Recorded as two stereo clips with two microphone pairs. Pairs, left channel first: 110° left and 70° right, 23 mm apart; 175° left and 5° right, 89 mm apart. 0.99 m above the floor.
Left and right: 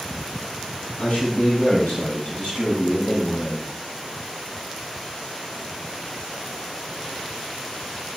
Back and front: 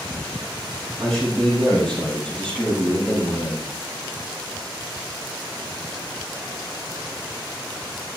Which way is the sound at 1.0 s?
90° left.